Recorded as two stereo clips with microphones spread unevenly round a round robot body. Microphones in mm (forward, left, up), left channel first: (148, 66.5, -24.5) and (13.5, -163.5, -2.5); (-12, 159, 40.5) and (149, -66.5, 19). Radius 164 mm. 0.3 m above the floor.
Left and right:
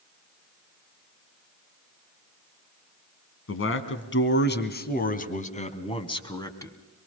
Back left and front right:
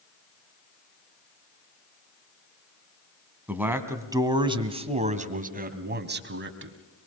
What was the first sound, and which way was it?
A man speaking, 30° left.